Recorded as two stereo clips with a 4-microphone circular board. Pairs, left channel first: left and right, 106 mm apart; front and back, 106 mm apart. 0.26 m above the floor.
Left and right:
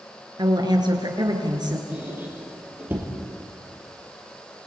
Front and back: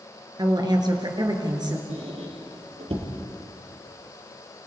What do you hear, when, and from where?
0.4 s a woman speaking: 135° right, 4 m
1.9 s a squeak: 160° right, 5 m